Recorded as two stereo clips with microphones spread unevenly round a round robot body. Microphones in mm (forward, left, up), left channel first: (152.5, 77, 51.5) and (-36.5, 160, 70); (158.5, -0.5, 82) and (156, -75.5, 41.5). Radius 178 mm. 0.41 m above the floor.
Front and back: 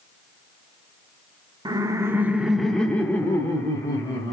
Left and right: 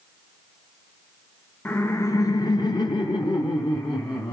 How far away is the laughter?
About 1.0 m.